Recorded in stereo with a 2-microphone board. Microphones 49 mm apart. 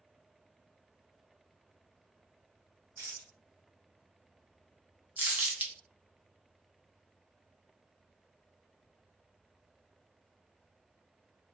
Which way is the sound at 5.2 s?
30° right (ahead or behind).